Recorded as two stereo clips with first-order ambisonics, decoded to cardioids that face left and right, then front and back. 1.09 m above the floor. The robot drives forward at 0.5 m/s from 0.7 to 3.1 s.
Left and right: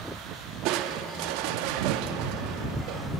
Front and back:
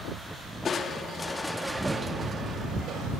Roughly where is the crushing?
Ahead right.